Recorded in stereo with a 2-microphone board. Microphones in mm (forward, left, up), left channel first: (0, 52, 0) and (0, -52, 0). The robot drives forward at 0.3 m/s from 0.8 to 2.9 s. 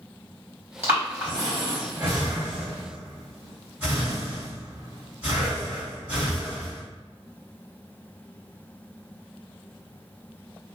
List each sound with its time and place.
0.8 s breathing: 20° right (ahead or behind), 1.9 m; by 6.8 s 15° right (ahead or behind), 2.5 m